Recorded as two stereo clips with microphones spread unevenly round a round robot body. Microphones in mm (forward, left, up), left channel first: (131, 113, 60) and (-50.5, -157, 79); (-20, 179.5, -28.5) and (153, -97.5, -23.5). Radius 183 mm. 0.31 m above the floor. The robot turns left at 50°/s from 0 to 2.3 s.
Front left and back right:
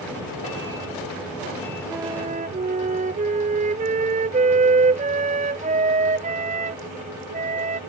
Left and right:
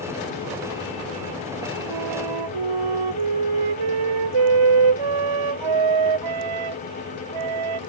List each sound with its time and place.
1.9 s a flute: 35° right; by 7.8 s 55° right